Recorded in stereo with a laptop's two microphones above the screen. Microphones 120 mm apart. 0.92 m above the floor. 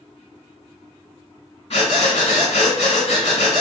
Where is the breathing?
65° left (ahead or behind), 1.7 m.